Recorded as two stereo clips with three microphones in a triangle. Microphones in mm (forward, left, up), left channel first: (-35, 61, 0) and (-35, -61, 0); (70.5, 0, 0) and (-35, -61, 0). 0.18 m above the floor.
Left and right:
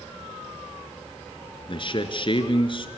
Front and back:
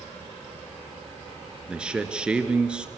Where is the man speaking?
130° left, 2.5 m.